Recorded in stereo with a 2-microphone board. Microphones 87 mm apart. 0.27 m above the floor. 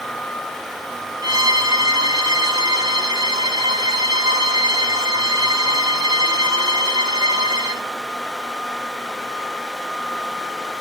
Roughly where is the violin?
Right.